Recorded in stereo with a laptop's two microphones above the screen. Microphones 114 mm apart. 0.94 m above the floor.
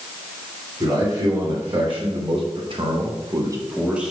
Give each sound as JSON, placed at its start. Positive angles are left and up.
{"t": 0.8, "sound": "a man speaking", "side_deg": -40, "distance_m": 3.0}